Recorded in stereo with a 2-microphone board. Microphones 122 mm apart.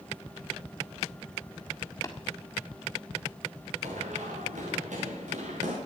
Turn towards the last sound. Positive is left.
turn(degrees=-75)  # may be behind; listen again after turning